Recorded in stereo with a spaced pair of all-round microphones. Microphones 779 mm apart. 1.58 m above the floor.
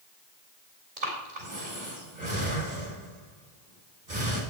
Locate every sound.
1.0 s breathing: 65° right (ahead or behind), 3.5 m